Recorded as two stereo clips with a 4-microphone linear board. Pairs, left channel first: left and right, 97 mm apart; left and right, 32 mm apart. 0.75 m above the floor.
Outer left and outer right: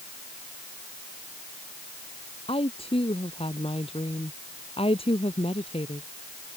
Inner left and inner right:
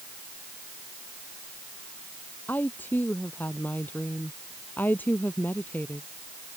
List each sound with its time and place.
2.5 s a woman speaking: 80° left